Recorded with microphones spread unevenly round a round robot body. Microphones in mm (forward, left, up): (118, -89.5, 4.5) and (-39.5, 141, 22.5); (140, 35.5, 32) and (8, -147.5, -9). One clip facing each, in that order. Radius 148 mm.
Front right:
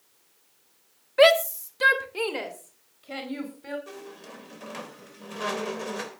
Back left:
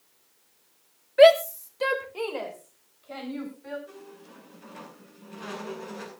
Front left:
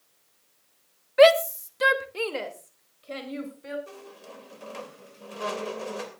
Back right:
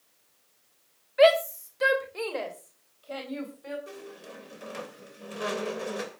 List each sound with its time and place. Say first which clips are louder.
1.2 s a shout: back left 3 dB, front left 4 dB; 20° left, 1.5 m; by 3.8 s 15° right, 5 m
3.9 s a squeak: front right 4 dB, back right 2 dB; 55° right, 3 m